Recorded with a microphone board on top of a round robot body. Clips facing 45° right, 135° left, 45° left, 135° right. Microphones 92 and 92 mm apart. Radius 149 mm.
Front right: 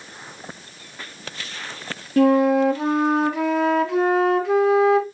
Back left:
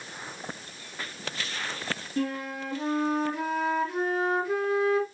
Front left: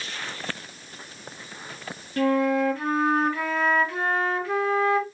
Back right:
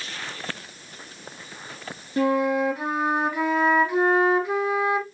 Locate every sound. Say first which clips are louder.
2.2 s a flute: front right 17 dB, even; 60° right, 0.6 m